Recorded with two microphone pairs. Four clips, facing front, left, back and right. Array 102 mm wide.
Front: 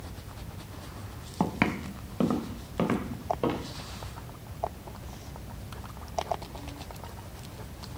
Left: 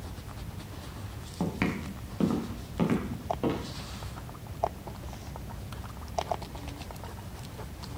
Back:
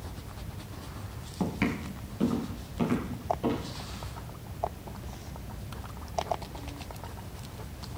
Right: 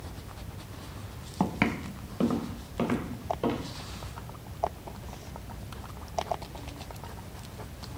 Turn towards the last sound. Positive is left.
turn(degrees=5)